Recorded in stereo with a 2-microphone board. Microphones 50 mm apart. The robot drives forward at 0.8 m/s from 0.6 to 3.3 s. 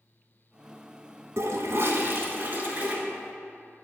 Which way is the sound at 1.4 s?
75° right (ahead or behind).